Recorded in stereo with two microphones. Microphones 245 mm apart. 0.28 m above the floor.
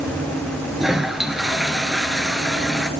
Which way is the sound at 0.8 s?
Centre (ahead or behind).